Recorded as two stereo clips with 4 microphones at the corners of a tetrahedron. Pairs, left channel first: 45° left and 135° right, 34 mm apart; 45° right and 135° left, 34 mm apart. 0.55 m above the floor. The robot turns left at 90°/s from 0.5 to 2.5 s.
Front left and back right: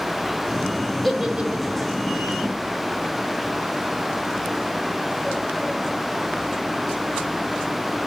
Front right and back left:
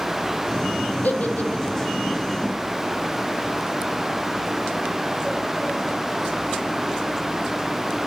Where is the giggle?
45° right, 1.5 m; by 1.9 s 125° right, 1.5 m.